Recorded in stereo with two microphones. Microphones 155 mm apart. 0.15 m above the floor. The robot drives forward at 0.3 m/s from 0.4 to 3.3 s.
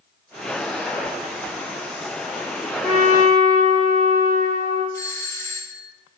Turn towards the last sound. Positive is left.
turn(degrees=20)  # may be behind; listen again after turning